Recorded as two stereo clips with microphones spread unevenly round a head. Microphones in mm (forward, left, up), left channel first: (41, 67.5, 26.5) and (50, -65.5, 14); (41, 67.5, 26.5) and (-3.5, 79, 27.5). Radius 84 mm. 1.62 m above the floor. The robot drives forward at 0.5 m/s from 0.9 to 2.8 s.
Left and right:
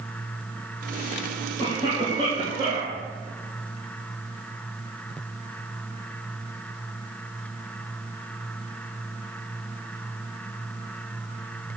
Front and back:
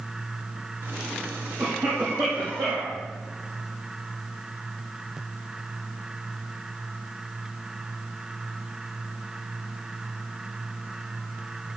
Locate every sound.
1.6 s a cough: 150° right, 3 m; by 3.0 s 155° right, 3.5 m